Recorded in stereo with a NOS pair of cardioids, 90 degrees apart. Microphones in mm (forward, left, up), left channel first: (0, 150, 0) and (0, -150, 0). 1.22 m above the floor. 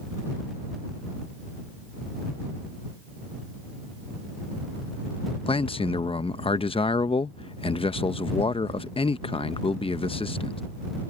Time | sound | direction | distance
5.5 | a man speaking | 20° left | ?